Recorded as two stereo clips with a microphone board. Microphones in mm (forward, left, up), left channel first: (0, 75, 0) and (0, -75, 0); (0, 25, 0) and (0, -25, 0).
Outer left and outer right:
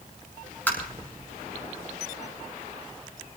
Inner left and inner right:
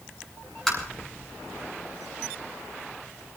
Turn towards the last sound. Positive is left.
turn(degrees=10)  # may be behind; listen again after turning